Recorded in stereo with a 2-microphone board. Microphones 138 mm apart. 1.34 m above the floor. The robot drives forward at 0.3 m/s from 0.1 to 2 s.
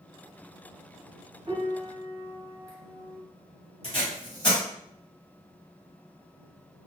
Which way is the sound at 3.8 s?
40° left (ahead or behind).